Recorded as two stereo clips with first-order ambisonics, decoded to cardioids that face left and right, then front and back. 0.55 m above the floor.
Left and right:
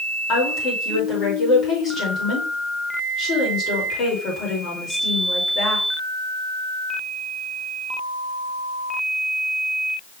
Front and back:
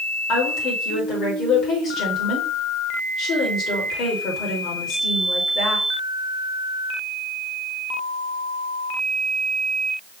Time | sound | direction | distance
0.3 | a woman speaking | 40° left | 2 m